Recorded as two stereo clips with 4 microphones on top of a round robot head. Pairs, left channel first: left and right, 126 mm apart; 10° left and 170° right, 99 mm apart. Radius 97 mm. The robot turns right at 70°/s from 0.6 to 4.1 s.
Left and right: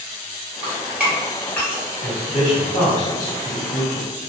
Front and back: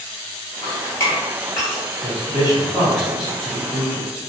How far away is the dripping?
About 1.1 m.